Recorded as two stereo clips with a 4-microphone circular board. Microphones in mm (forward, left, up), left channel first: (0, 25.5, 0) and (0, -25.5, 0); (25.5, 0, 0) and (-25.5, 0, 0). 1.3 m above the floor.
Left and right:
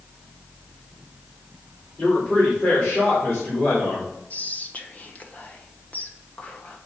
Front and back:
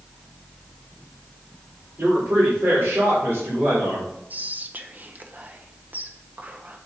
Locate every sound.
2.0 s a man speaking: 135° left, 3.5 m; by 4.1 s 120° left, 4 m
4.3 s whispering: 140° left, 0.8 m